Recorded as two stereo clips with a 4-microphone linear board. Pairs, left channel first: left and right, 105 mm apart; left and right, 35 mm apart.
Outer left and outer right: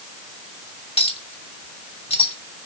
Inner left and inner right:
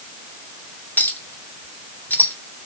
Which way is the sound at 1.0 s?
65° left (ahead or behind).